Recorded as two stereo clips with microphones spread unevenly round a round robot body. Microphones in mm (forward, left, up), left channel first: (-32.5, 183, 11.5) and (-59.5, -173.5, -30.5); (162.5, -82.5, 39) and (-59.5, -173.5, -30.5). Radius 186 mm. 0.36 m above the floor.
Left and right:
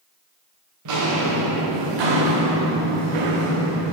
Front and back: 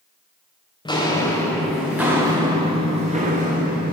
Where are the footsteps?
45° right, 2 m; by 3.9 s 105° right, 2.5 m.